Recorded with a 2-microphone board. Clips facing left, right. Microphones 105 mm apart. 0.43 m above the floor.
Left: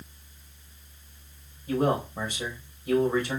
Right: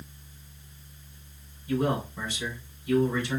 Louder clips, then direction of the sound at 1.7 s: Left 2 dB; 55° left (ahead or behind).